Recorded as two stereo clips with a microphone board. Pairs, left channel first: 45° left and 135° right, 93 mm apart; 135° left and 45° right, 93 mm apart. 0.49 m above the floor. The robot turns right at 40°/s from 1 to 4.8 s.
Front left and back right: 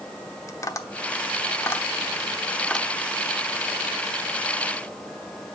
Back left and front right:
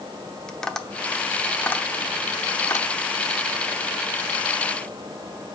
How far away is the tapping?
About 0.9 m.